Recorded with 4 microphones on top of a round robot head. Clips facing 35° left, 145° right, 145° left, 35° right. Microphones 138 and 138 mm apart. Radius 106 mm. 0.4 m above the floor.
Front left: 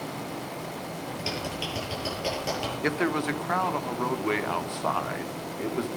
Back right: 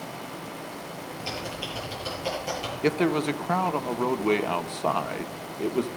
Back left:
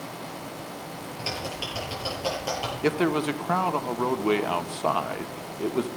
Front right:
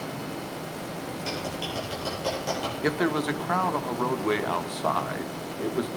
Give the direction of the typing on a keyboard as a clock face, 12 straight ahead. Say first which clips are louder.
Front left 1 dB, back left 1 dB; 10 o'clock.